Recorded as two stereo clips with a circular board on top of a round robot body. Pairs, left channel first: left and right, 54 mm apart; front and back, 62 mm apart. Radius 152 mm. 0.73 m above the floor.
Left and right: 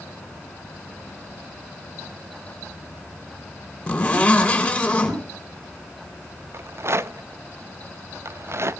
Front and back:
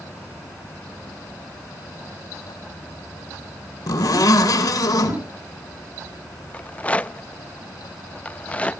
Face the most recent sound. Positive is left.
turn(degrees=-65)